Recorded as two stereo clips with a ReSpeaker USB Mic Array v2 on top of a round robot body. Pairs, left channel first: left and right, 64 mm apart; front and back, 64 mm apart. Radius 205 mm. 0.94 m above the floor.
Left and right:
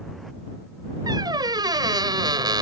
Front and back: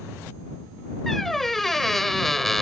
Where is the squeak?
85° right.